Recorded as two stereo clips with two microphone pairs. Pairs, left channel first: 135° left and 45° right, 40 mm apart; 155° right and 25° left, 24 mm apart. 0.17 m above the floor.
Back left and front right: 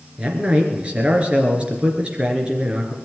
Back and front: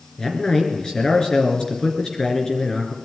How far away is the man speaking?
About 3 m.